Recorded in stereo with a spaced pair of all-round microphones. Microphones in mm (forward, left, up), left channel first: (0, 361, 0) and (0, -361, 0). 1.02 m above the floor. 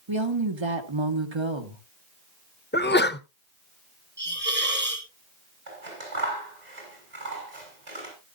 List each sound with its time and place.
0.1 s a woman speaking: 40° right (ahead or behind), 1.4 m
2.7 s a sneeze: 15° left (ahead or behind), 0.6 m
4.2 s a hiss: 15° right (ahead or behind), 3.5 m
5.7 s scissors: 70° right (ahead or behind), 5.5 m